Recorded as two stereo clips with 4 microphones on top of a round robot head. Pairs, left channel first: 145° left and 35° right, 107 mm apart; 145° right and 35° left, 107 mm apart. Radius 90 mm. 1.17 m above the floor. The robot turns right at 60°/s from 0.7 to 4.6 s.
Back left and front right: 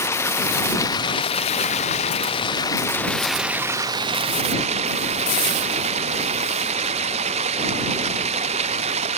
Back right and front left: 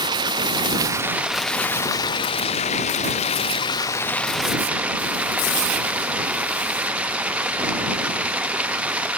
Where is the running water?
80° left; by 9.2 s 45° right.